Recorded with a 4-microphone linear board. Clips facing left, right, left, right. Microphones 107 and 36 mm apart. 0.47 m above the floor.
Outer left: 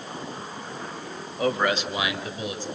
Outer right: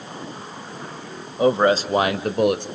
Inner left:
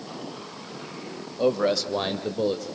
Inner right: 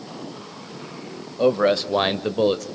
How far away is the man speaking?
About 1.9 m.